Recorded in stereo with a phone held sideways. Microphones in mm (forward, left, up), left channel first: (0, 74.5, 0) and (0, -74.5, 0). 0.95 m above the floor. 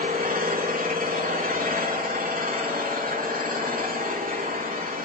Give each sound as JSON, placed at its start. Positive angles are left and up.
{"t": 0.0, "sound": "an engine running", "side_deg": -75, "distance_m": 9.0}